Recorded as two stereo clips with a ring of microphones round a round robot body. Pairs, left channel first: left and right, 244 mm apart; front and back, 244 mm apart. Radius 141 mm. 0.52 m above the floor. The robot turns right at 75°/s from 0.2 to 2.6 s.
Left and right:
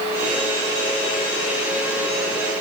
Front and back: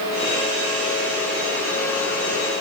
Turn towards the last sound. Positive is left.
No sound to turn to.